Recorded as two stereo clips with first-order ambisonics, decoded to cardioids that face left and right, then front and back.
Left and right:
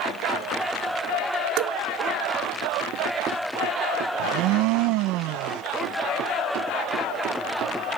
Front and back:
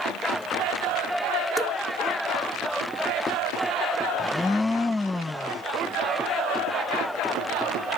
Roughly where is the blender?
Right.